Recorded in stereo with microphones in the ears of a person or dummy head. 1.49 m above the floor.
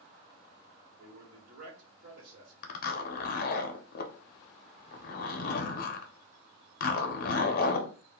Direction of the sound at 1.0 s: 60° right (ahead or behind).